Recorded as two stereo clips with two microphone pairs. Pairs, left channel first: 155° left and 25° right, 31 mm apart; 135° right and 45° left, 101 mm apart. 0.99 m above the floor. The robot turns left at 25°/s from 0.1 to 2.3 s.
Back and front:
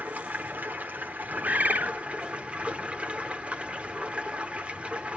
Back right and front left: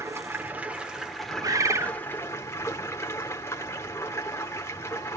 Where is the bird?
5° right, 0.7 m; by 1.9 s 20° right, 0.7 m.